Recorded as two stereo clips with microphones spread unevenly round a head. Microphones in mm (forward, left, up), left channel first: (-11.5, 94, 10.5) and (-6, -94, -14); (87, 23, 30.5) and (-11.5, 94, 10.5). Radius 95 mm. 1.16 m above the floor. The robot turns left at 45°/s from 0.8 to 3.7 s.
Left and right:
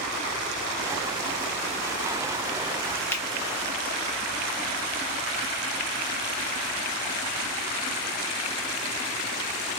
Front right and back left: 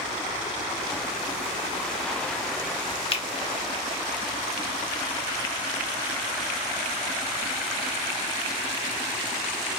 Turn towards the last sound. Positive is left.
turn(degrees=-15)